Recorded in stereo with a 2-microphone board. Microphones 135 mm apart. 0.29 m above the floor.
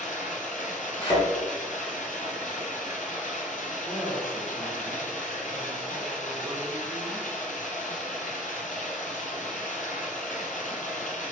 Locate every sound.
0.0 s running water: 70° left (ahead or behind), 1.0 m
1.0 s a thud: 40° left (ahead or behind), 1.7 m
3.8 s a woman speaking: 10° right (ahead or behind), 1.3 m